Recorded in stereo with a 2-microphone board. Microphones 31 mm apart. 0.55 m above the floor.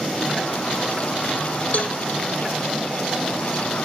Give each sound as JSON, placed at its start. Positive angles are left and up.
{"t": 1.7, "sound": "a cowbell", "side_deg": 60, "distance_m": 0.9}